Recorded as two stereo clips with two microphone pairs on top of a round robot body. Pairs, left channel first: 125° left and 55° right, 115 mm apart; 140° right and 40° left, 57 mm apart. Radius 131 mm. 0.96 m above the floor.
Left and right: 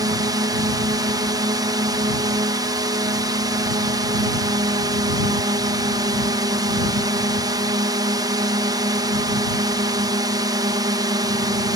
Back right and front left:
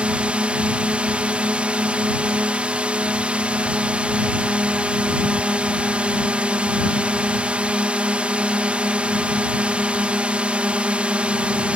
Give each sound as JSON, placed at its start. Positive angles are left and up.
{"t": 0.0, "sound": "a drone", "azimuth_deg": -25}